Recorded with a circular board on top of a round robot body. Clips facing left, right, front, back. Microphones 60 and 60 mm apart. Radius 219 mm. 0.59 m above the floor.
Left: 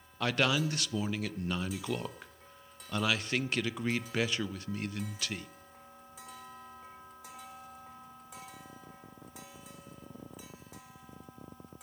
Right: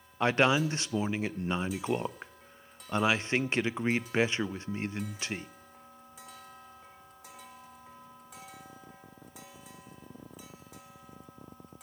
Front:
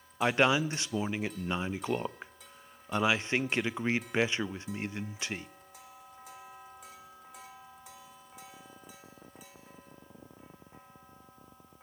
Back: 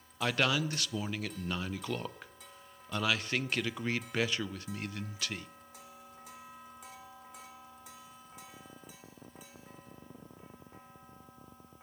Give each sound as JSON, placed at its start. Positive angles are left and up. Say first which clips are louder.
{"t": 0.2, "sound": "a man speaking", "louder": "right 4 dB, front 5 dB", "azimuth_deg": -50, "distance_m": 0.6}